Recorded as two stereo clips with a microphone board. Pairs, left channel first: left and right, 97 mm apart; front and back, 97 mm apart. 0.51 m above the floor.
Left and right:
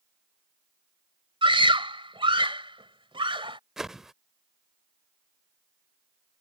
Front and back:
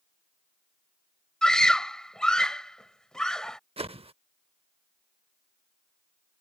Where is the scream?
80° right.